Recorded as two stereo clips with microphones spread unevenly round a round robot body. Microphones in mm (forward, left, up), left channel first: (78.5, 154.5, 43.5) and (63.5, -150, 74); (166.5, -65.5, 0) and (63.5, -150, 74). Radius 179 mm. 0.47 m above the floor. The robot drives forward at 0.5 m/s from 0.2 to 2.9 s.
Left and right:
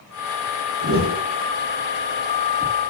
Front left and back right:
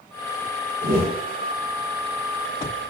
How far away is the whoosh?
About 1.2 m.